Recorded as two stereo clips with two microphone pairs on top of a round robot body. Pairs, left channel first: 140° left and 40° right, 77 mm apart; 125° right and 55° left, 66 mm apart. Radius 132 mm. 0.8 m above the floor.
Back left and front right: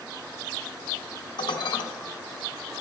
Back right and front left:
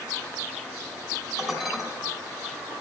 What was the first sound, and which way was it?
Dishes clattering, 140° left.